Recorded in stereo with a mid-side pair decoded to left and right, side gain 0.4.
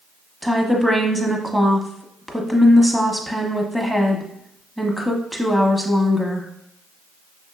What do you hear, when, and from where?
0.4 s a woman speaking: 5° left, 1.1 m